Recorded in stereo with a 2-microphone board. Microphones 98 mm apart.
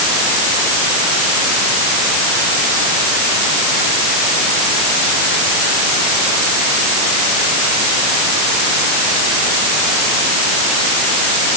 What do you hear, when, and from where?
Only background noise.